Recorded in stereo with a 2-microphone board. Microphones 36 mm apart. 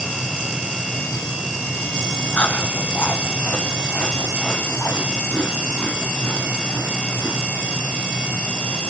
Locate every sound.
2.3 s chewing: 55° left (ahead or behind), 2 m